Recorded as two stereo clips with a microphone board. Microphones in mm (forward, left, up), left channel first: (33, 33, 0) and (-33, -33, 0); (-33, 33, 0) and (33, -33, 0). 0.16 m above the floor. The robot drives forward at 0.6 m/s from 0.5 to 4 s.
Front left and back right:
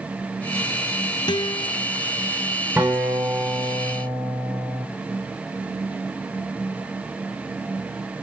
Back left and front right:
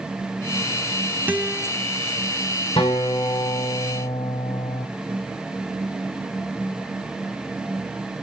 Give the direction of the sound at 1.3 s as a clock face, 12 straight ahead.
11 o'clock.